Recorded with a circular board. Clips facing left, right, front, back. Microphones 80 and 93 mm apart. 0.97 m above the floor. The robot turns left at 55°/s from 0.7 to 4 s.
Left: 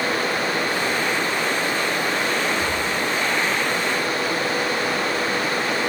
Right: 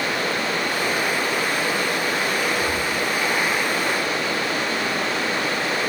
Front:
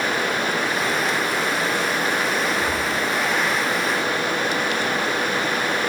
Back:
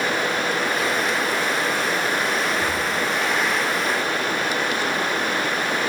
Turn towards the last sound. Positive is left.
turn(degrees=0)